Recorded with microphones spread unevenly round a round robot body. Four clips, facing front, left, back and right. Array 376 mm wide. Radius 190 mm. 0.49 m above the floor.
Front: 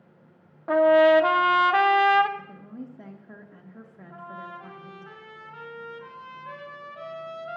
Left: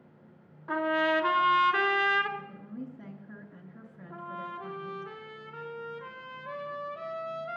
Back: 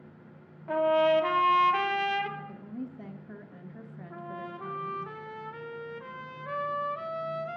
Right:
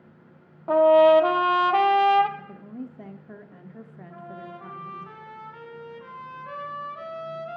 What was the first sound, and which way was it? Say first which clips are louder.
A trumpet: right 13 dB, front 7 dB; 45° right.